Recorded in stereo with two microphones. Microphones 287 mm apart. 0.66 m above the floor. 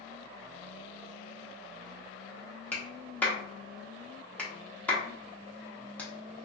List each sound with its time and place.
2.7 s a clap: 5° left (ahead or behind), 1.0 m